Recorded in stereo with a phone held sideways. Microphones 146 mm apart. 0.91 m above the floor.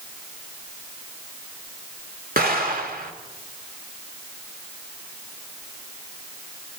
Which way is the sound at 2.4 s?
85° right.